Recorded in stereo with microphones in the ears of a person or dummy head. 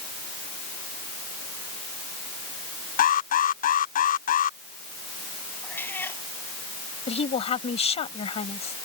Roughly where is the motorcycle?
I don't hear a motorcycle.